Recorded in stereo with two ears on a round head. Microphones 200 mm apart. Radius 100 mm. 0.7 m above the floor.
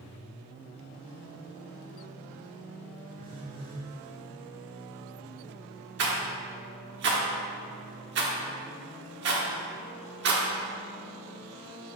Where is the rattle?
50° right (ahead or behind), 1.2 m.